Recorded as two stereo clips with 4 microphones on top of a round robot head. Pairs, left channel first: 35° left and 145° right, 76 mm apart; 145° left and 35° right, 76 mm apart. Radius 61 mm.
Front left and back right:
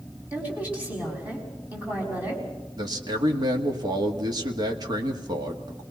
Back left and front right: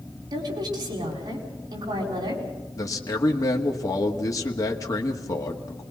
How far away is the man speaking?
About 2 m.